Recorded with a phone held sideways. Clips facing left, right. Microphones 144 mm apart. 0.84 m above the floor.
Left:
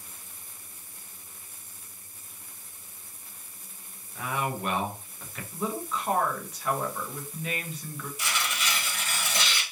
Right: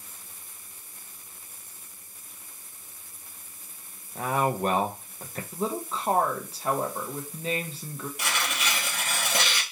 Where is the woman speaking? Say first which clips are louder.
Right 1 dB; 30° right (ahead or behind), 0.6 m.